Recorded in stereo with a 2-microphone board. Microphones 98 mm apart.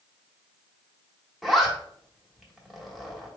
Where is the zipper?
Centre (ahead or behind), 1.3 m.